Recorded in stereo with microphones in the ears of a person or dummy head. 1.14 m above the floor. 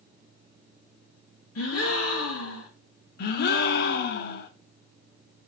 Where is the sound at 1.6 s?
75° left (ahead or behind), 2.0 m.